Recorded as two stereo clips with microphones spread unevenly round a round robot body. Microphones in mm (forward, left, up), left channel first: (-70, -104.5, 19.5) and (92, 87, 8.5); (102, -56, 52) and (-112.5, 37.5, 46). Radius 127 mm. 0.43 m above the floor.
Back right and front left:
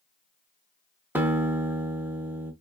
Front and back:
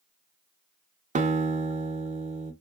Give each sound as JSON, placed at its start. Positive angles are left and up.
{"t": 1.1, "sound": "a guitar", "azimuth_deg": 125, "distance_m": 0.6}